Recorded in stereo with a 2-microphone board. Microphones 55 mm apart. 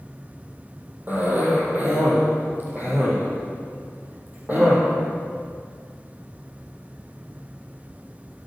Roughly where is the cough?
Right.